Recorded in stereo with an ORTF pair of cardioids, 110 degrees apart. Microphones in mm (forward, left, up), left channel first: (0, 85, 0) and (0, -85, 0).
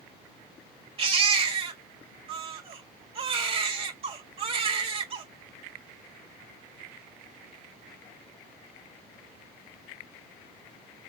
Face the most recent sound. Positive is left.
turn(degrees=-35)